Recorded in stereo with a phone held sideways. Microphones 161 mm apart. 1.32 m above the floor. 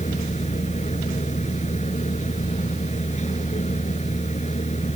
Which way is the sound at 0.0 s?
45° left (ahead or behind).